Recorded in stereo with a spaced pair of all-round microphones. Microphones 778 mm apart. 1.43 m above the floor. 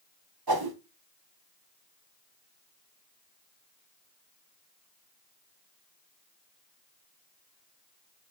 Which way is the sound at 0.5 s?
30° right (ahead or behind).